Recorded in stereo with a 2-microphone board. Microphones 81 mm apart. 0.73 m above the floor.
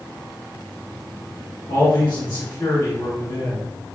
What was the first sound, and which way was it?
A man speaking, 60° left (ahead or behind).